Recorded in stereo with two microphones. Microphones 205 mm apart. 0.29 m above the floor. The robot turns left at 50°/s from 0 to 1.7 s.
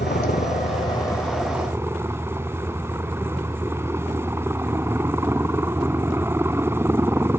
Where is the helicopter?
70° left; by 7.4 s 15° right.